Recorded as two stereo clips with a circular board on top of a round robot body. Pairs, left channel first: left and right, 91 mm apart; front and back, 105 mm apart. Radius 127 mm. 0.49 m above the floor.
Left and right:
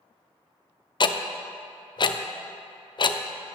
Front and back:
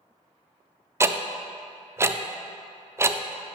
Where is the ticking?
115° left, 0.6 m.